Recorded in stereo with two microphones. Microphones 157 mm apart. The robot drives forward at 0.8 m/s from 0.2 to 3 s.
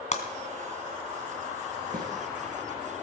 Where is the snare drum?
60° right (ahead or behind), 5.5 m.